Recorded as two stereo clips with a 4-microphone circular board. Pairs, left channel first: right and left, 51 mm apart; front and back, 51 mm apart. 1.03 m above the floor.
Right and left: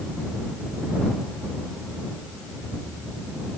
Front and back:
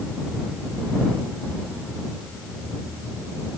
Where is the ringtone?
I don't hear a ringtone.